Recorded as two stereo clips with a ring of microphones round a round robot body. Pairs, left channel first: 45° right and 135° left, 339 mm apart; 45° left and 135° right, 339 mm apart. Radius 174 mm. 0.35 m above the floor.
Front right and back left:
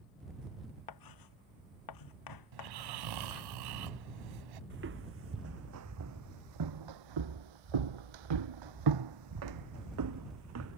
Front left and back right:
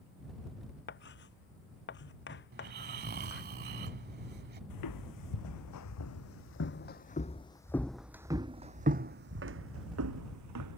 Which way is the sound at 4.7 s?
75° left.